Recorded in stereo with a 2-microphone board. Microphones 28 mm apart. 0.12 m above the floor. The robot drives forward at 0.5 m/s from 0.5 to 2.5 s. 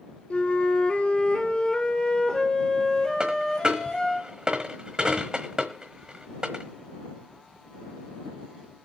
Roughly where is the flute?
Left.